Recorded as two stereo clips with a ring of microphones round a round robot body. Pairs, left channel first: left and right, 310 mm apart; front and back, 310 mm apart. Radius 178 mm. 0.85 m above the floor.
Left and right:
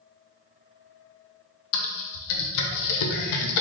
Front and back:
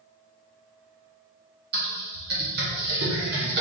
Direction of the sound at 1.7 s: 115° left.